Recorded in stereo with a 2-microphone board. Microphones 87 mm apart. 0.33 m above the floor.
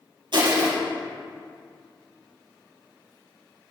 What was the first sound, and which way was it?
Crushing, 65° right (ahead or behind).